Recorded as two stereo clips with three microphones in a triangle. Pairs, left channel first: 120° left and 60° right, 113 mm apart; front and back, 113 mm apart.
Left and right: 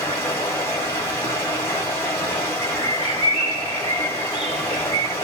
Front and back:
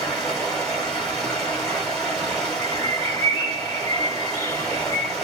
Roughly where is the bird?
Ahead right.